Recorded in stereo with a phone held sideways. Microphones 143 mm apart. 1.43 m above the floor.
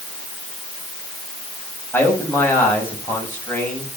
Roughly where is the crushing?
No crushing in this recording.